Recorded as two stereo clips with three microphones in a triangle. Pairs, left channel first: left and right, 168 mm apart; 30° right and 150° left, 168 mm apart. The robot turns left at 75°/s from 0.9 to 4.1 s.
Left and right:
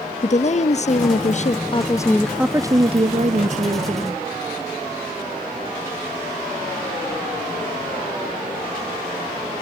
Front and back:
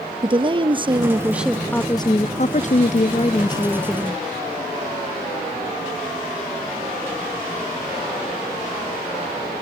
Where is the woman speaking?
105° left, 0.5 m; by 4.2 s 135° right, 0.5 m.